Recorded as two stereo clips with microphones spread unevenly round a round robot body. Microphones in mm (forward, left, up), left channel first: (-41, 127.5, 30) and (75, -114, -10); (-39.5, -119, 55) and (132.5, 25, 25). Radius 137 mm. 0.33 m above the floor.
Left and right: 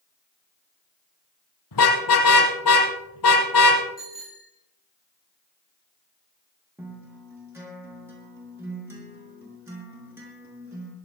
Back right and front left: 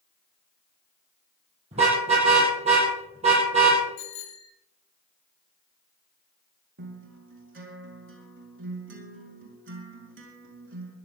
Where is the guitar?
15° left, 5.5 m.